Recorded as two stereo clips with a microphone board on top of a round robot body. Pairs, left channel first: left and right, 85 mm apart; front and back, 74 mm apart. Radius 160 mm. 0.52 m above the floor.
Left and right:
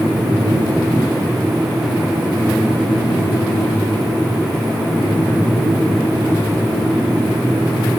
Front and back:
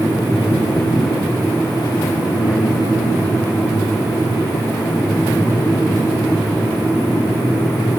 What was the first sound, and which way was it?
Only background noise.